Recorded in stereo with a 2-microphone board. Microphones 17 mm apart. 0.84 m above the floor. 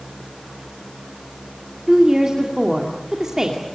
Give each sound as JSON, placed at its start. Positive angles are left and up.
{"t": 1.9, "sound": "a woman speaking", "side_deg": -40, "distance_m": 2.5}